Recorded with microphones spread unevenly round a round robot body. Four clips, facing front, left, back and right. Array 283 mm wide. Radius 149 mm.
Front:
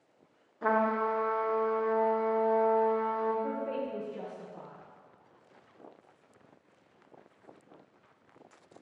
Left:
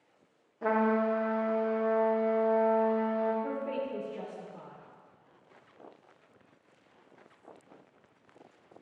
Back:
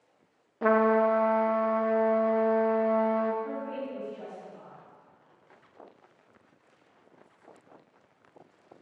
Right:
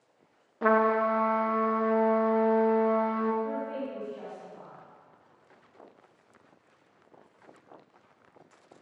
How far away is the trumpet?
About 0.7 m.